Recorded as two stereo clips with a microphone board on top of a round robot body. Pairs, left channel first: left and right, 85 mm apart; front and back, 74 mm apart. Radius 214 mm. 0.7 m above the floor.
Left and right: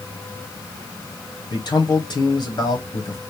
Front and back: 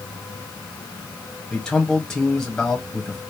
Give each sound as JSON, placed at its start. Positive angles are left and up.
{"t": 1.5, "sound": "a man speaking", "azimuth_deg": 80, "distance_m": 1.6}